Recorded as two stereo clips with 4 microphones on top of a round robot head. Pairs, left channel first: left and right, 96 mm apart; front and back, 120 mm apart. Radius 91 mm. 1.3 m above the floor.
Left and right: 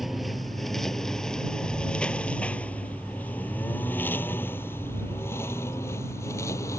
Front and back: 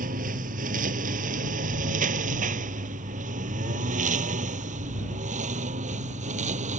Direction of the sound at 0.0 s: Straight behind.